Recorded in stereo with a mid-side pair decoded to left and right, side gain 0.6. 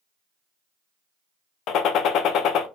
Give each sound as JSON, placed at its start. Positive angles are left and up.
{"t": 1.7, "sound": "a gunshot", "azimuth_deg": 60, "distance_m": 0.5}